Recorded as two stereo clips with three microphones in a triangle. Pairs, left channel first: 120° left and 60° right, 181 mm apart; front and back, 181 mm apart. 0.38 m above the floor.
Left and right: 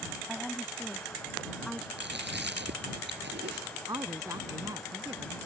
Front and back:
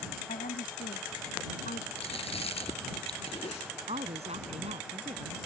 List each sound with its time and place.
0.3 s a woman speaking: 30° left
2.0 s chewing: 55° right
3.9 s a woman speaking: 130° right